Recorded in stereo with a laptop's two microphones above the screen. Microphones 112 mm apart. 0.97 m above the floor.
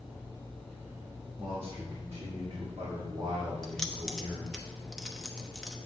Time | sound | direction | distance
1.4 | a man speaking | 40° right (ahead or behind) | 1.3 m
3.6 | keys jangling | 5° left (ahead or behind) | 0.8 m